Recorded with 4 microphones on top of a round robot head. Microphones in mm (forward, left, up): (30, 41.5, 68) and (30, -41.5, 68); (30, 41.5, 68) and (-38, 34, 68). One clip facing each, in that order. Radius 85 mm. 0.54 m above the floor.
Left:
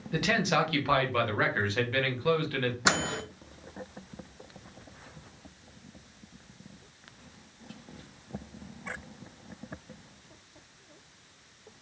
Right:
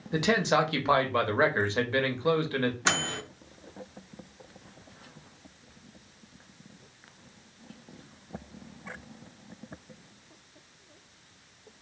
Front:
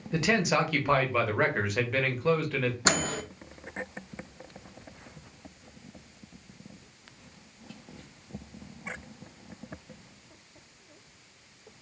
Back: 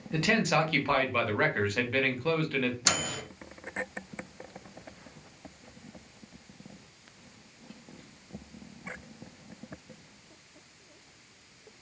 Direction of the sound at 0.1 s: 60° right.